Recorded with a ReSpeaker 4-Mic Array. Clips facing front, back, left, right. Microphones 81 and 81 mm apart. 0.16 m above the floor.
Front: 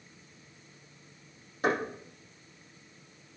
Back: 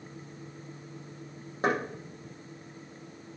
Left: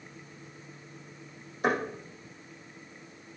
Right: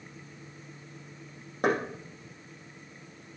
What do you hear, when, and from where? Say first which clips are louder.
1.6 s knocking: back 1 dB, right 1 dB; 120° right, 5.5 m